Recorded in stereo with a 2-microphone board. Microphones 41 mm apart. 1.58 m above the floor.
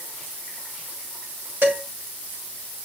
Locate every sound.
1.6 s dishes clattering: 55° right (ahead or behind), 6 m